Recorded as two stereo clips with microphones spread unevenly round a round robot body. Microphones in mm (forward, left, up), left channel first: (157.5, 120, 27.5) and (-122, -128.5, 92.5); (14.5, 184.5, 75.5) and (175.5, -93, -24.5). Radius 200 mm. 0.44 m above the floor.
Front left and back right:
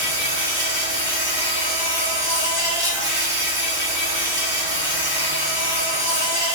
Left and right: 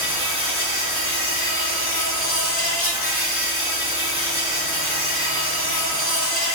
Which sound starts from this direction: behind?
An insect, at 0.0 s.